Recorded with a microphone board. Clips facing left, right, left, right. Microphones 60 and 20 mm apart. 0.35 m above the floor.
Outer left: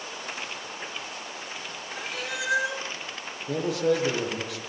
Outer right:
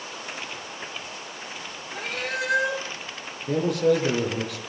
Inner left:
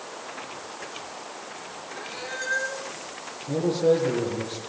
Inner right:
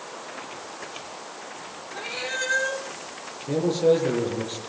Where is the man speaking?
55° right (ahead or behind), 8.5 m.